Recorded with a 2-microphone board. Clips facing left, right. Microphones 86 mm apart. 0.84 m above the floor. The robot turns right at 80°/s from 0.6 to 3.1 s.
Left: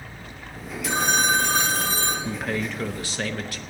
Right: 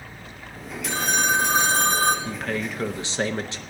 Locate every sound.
0.9 s a phone ringing: 150° left, 1.9 m; by 2.1 s 105° right, 1.9 m
2.2 s a man speaking: 155° left, 0.7 m; by 3.6 s 140° right, 0.7 m